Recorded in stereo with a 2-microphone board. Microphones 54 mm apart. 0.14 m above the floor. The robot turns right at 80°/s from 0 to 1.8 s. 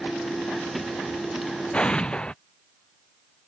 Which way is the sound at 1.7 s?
25° left (ahead or behind).